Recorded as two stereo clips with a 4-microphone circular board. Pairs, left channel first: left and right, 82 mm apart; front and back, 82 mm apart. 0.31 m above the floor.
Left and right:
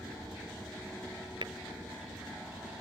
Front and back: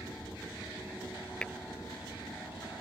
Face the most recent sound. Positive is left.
turn(degrees=-80)